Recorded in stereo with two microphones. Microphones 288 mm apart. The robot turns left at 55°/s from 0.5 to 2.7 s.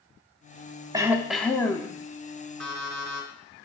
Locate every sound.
0.9 s throat clearing: 160° right, 0.8 m; by 1.9 s 145° left, 0.8 m
2.6 s an alarm clock: 85° right, 1.9 m; by 3.6 s 90° right, 1.9 m